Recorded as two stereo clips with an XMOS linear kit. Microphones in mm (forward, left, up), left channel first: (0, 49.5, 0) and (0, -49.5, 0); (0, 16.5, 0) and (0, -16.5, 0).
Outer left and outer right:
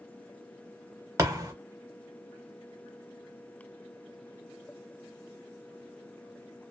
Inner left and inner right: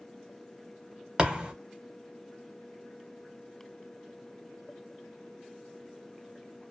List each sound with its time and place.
1.2 s a thud: 30° right (ahead or behind), 0.6 m